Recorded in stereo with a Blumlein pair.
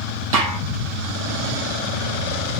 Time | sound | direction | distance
0.3 | a snare drum | 55° right | 5 m